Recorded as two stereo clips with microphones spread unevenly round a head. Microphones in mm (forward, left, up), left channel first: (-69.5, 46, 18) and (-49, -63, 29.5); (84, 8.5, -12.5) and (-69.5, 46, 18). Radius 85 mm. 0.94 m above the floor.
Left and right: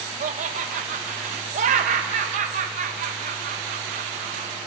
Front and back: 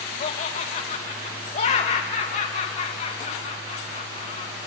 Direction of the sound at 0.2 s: 55° right.